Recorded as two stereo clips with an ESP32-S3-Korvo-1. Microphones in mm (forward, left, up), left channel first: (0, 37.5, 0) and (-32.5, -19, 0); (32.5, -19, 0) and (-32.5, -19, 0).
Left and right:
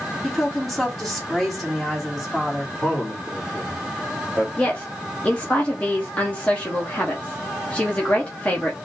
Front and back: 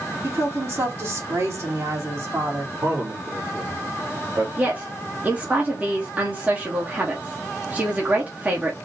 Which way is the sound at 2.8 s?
160° left.